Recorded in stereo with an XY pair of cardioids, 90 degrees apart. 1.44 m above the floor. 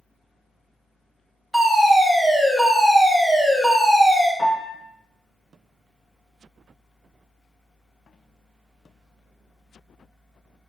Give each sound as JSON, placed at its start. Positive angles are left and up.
{"t": 0.0, "sound": "a fan", "azimuth_deg": 0, "distance_m": 1.5}
{"t": 1.5, "sound": "a fire alarm", "azimuth_deg": -10, "distance_m": 2.0}
{"t": 4.4, "sound": "a piano", "azimuth_deg": 25, "distance_m": 2.0}